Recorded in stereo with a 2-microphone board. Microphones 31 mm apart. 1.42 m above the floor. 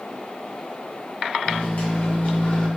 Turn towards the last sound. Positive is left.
turn(degrees=75)  # may be behind; listen again after turning